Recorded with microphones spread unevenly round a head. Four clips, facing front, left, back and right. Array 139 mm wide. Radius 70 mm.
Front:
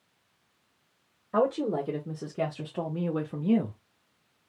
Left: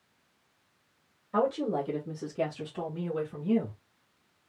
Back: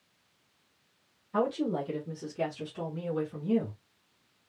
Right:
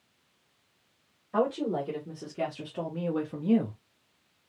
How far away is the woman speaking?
About 2 m.